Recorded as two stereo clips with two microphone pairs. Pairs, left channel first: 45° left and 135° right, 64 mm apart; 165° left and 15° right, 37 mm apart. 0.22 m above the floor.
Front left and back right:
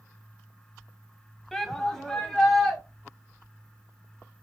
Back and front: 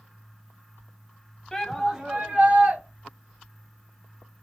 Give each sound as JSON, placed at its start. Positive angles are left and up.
{"t": 1.5, "sound": "a shout", "azimuth_deg": 120, "distance_m": 1.1}